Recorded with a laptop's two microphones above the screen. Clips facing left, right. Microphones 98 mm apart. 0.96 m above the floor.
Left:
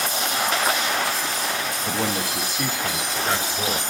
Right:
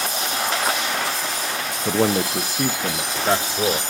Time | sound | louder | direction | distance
1.9 | a man speaking | right 8 dB | 45° right (ahead or behind) | 0.7 m